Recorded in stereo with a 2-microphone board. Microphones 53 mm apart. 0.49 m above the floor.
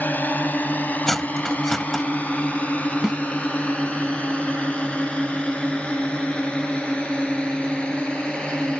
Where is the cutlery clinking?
5° left (ahead or behind).